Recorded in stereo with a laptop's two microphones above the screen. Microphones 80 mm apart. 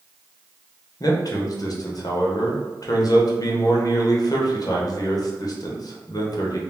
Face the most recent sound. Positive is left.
turn(degrees=50)  # may be behind; listen again after turning